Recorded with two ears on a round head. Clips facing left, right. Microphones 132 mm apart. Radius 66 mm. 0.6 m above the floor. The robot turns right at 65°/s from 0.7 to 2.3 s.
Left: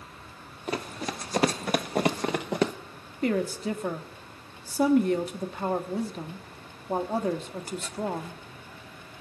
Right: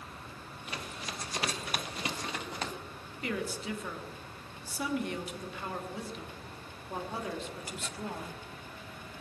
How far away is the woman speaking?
About 1.2 m.